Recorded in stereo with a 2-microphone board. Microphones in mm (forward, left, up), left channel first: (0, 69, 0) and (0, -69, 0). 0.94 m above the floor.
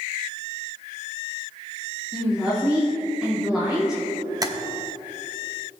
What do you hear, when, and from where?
2.1 s a woman speaking: 5° right (ahead or behind), 2 m
4.4 s tapping: 25° right (ahead or behind), 0.8 m